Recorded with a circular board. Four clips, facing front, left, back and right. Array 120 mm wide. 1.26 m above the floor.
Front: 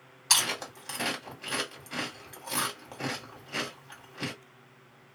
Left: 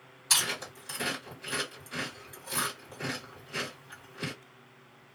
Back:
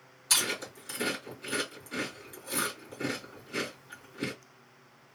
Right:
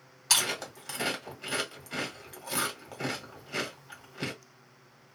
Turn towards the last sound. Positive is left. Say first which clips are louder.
# right 2 dB, front 3 dB
turn(degrees=-40)